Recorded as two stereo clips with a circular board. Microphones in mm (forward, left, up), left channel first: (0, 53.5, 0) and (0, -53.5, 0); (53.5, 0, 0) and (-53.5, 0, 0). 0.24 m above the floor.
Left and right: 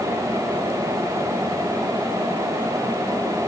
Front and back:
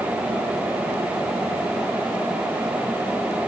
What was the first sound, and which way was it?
Only background noise.